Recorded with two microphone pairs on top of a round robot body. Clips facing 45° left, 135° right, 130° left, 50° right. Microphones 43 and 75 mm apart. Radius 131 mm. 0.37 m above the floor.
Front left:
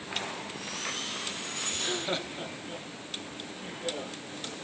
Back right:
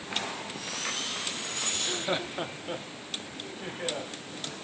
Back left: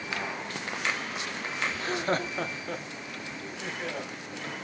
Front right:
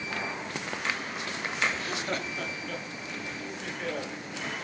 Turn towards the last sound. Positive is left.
turn(degrees=-155)